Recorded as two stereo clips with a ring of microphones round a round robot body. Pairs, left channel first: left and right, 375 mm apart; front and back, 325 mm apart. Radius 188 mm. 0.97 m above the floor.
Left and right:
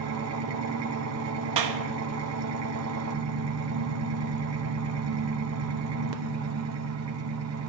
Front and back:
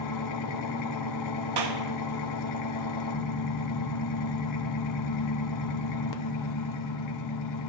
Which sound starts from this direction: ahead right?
An engine running, at 0.0 s.